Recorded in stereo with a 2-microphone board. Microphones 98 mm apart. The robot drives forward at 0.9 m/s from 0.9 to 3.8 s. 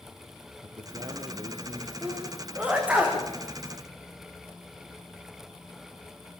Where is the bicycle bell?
I don't hear a bicycle bell.